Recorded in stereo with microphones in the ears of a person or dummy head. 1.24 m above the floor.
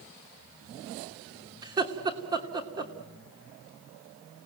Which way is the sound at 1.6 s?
15° right (ahead or behind).